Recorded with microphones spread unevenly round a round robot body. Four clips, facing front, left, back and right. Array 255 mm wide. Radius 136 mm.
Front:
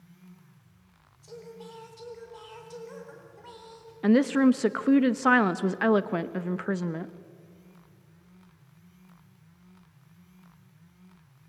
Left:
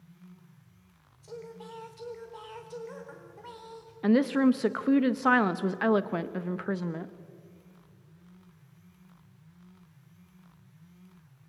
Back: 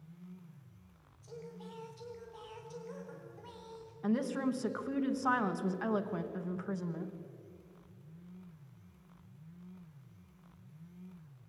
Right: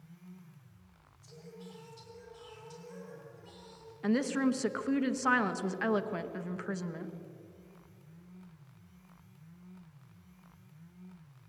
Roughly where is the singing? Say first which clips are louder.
Left 8 dB, front 4 dB; ahead left.